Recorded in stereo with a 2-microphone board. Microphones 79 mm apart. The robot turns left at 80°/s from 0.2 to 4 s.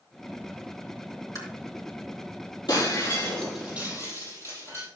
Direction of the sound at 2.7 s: 65° left (ahead or behind).